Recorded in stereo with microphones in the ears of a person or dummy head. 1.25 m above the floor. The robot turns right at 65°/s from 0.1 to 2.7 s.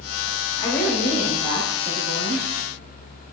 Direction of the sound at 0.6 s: 155° left.